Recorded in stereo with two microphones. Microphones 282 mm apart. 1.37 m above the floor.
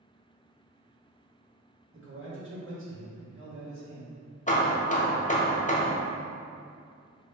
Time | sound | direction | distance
1.9 | a man speaking | 45° right (ahead or behind) | 1.5 m
4.5 | hammering | 25° left (ahead or behind) | 0.6 m